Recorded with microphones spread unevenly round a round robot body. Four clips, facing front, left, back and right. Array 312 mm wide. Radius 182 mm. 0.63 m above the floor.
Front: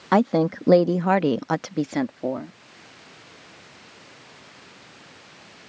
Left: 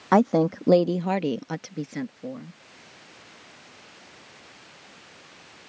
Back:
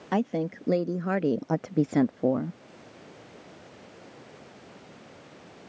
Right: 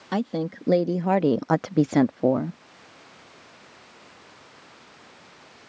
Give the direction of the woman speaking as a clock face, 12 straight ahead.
11 o'clock.